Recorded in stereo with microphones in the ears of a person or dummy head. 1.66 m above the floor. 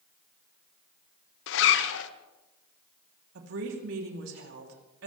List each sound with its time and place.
1.5 s a zipper: 80° left, 1.2 m
3.4 s a woman speaking: 75° right (ahead or behind), 3.5 m